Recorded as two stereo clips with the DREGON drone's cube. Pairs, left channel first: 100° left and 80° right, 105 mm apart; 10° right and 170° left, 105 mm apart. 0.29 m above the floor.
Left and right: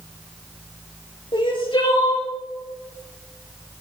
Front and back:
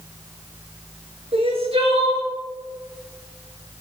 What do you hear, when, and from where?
1.3 s crying: 140° left, 3 m